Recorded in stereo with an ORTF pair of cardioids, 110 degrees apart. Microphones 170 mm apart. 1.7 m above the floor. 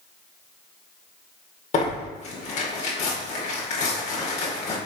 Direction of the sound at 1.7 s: 45° left.